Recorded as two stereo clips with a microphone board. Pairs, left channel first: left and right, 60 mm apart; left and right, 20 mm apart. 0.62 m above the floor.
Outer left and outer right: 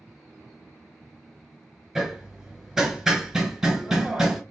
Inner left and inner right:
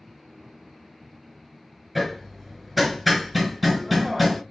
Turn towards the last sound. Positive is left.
turn(degrees=-5)  # may be behind; listen again after turning